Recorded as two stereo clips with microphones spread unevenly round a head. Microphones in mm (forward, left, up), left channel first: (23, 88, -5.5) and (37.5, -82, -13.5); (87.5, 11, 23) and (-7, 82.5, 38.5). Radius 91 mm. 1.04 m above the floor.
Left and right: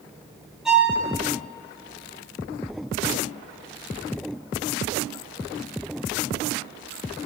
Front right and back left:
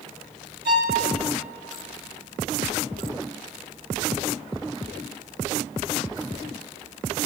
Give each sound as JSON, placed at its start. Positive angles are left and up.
{"t": 0.7, "sound": "a violin", "azimuth_deg": -175, "distance_m": 1.9}